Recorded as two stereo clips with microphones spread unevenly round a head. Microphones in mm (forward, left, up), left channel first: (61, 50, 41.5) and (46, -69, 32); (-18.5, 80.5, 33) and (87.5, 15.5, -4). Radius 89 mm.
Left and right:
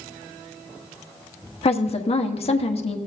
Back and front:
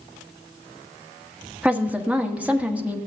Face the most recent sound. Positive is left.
turn(degrees=45)